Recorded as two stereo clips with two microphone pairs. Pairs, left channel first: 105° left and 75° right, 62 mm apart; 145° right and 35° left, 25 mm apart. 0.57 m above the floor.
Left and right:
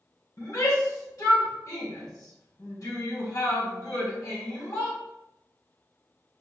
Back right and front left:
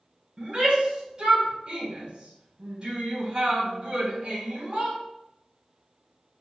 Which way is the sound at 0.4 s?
85° left.